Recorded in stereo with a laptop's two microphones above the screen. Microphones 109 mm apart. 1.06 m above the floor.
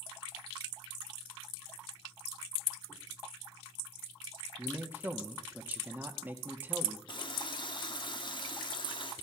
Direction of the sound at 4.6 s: 15° right (ahead or behind).